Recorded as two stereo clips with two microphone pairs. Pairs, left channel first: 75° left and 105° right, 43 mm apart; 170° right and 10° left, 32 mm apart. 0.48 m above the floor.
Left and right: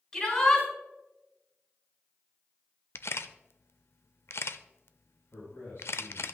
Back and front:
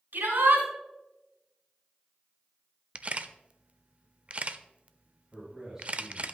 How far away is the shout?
About 5 m.